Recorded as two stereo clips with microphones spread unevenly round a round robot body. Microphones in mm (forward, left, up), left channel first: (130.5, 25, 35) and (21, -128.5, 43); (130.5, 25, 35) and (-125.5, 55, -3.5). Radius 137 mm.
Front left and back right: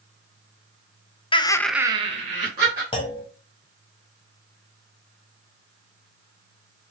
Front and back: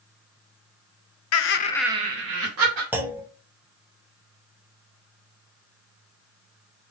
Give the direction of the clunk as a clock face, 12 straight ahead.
9 o'clock.